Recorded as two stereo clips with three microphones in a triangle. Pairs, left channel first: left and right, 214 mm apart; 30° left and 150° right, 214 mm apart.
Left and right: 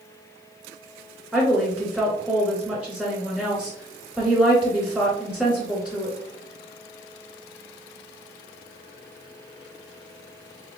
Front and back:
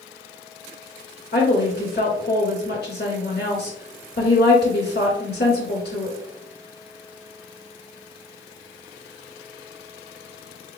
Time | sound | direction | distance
1.3 | a woman speaking | 5° right | 1.9 m